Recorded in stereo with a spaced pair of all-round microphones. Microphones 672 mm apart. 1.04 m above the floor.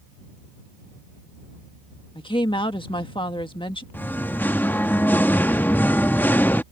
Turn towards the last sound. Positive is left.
turn(degrees=5)  # may be behind; listen again after turning